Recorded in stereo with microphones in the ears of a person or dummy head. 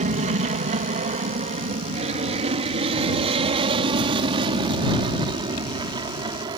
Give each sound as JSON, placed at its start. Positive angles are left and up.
{"t": 0.0, "sound": "an aircraft", "side_deg": -35}